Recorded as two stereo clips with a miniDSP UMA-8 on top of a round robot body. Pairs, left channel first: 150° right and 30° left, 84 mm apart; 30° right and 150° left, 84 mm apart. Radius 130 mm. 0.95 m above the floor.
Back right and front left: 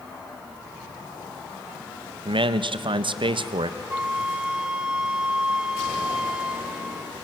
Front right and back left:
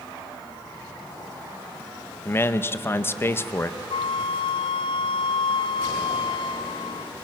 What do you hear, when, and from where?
2.2 s a man speaking: 30° left, 1.1 m
3.9 s a flute: 50° right, 0.5 m